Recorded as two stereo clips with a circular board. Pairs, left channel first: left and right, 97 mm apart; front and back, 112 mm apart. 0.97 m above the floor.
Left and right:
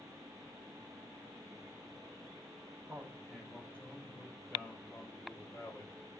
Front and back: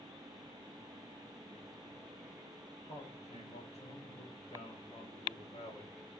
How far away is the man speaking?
About 4.5 m.